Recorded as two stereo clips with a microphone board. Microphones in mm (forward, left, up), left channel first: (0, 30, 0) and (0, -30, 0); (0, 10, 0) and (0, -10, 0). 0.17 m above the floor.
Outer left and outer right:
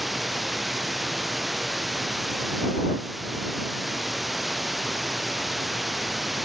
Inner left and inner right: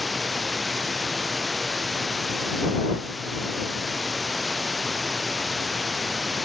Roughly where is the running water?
Centre.